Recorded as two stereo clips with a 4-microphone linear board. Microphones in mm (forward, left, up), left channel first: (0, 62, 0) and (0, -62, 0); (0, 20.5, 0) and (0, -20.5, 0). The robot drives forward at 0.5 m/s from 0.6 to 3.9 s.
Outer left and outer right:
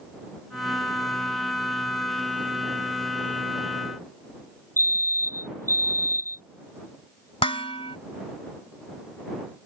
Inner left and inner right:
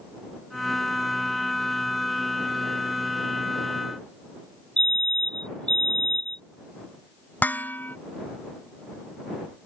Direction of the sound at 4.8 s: 20° left (ahead or behind).